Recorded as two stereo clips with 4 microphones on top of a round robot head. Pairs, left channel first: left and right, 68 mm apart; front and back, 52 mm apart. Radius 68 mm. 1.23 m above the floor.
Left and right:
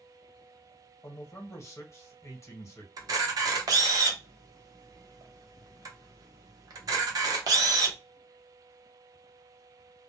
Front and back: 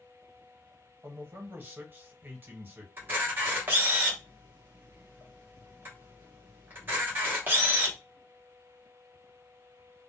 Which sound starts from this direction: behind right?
A camera shutter, at 3.0 s.